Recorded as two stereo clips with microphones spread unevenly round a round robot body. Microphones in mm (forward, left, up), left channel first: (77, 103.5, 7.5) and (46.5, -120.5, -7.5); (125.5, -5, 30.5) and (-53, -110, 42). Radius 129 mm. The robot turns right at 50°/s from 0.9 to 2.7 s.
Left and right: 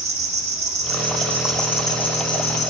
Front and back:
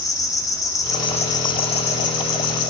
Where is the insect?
40° right, 0.9 m; by 2.7 s 50° left, 0.9 m.